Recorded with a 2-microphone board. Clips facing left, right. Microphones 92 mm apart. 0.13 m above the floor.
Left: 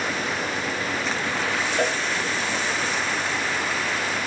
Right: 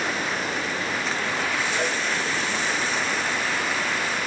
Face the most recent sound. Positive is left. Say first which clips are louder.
# left 5 dB
turn(degrees=55)  # may be behind; listen again after turning